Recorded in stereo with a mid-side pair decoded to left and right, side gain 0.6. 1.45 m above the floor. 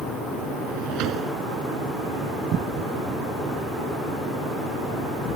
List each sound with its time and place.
0.7 s a drawer: 60° right